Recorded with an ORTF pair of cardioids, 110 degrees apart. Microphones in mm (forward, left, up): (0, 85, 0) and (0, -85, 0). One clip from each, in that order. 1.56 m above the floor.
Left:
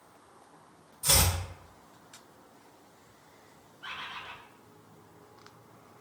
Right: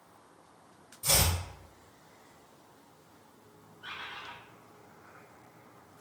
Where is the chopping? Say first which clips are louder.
Left 2 dB; 10° left, 1.8 m.